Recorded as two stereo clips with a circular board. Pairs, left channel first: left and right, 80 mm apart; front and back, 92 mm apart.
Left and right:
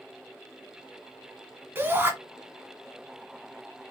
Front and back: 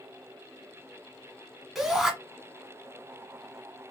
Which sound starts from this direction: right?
A shout, at 1.8 s.